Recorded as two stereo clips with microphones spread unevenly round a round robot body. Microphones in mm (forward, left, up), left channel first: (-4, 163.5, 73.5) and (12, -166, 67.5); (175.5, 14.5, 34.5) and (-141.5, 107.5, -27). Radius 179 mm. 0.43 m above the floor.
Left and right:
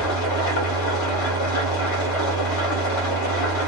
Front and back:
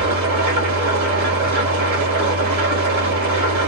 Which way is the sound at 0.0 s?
115° left.